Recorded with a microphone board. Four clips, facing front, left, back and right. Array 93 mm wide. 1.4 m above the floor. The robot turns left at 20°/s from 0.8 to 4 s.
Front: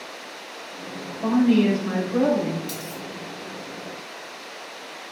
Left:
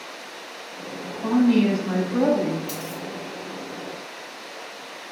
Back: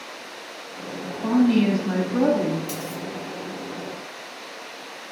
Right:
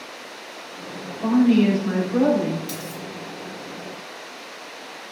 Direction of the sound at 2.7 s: 130° left.